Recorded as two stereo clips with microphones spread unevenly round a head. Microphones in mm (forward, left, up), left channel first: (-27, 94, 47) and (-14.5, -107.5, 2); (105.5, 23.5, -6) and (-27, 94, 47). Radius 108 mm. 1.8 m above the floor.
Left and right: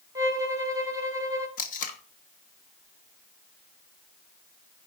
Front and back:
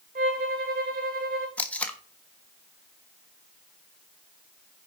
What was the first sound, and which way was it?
A violin, 165° right.